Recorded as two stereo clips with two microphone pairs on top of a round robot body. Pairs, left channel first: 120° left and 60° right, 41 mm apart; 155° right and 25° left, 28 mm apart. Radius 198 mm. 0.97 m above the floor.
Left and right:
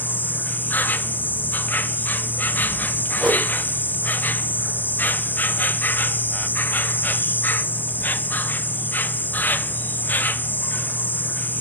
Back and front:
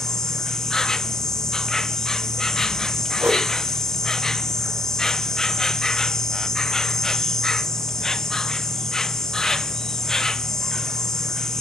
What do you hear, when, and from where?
0.0 s an insect: 140° left, 1.1 m
3.2 s a whoosh: 25° left, 4.5 m